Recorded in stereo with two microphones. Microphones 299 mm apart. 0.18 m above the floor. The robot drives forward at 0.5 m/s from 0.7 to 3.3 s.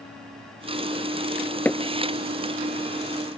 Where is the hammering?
5° left (ahead or behind).